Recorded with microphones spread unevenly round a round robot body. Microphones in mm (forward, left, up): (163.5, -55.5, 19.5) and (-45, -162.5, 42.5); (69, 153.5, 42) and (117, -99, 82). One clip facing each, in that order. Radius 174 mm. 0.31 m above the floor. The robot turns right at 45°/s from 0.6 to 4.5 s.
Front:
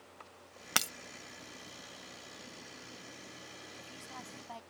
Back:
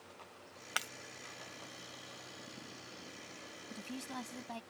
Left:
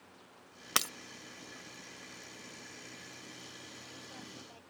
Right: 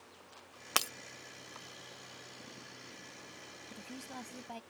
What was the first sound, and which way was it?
Breaking glass, 45° left.